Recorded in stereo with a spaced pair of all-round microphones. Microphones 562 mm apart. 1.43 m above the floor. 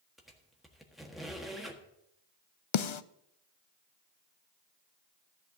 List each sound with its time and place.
0.2 s a squeak: centre (ahead or behind), 1.5 m
2.7 s a snare drum: 60° left (ahead or behind), 0.5 m